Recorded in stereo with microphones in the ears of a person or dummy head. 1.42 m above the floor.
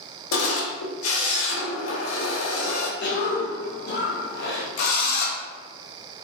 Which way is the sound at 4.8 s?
60° left (ahead or behind).